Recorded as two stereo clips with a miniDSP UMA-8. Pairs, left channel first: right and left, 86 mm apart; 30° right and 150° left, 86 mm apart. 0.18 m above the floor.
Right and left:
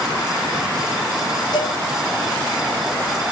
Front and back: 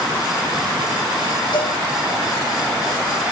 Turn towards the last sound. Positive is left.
turn(degrees=-55)